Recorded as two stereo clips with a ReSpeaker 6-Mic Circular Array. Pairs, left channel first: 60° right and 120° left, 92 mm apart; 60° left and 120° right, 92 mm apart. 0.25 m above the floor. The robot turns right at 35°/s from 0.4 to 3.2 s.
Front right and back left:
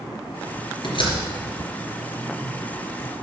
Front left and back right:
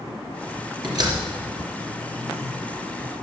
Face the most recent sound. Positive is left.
turn(degrees=0)